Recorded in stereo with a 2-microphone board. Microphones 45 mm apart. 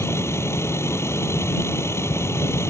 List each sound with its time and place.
0.0 s a vehicle: 85° left